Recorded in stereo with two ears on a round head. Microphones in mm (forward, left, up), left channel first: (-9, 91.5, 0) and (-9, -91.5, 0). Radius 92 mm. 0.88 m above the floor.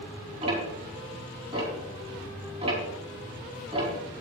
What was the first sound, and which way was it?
Ticking, 30° right (ahead or behind).